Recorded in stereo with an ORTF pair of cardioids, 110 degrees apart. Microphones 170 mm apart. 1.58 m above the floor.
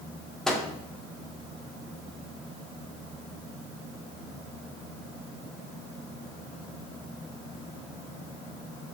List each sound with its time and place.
0.5 s a microwave: 5° left, 0.9 m